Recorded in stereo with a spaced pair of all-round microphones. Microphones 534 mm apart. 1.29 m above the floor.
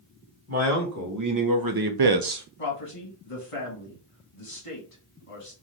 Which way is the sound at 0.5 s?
30° right (ahead or behind).